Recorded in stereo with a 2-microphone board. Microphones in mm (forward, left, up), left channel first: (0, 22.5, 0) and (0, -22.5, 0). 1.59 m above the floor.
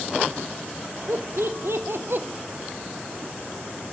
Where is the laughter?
75° right (ahead or behind), 1.6 m; by 2.2 s 50° right (ahead or behind), 0.8 m.